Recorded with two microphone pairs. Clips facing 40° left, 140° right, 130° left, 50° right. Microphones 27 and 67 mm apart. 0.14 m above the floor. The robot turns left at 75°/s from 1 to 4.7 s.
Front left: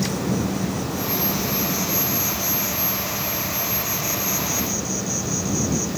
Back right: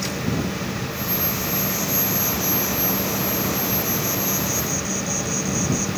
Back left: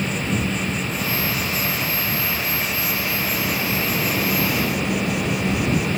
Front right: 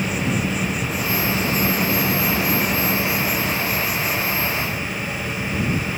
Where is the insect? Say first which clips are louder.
Front left 1 dB, front right 1 dB; 35° left; by 6.0 s 120° left.